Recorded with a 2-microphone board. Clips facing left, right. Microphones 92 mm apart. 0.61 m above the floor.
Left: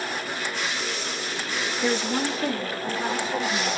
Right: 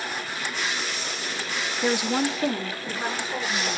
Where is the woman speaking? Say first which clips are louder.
Right 2 dB; 10° right (ahead or behind), 0.5 m; by 3.8 s 15° right (ahead or behind), 1.9 m.